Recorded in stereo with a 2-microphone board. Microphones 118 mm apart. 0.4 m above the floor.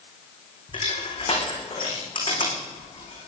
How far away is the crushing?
About 6 m.